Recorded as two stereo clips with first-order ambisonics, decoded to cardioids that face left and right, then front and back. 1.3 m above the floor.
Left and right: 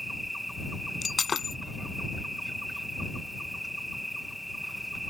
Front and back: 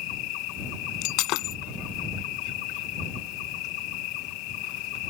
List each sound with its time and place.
0.0 s an insect: straight ahead
1.0 s breaking glass: 20° left